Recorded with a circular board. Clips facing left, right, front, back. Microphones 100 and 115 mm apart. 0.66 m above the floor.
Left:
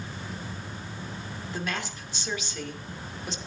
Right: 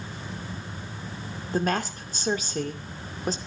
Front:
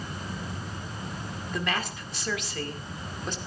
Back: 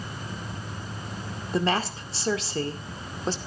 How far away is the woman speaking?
About 2 m.